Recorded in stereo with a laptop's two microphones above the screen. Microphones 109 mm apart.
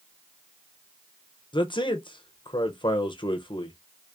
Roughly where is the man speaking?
Left.